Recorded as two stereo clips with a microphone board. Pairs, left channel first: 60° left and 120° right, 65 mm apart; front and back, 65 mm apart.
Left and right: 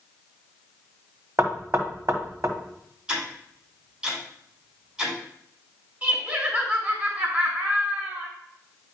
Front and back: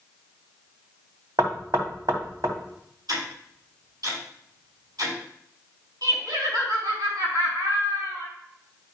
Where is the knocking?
165° right, 1.5 m.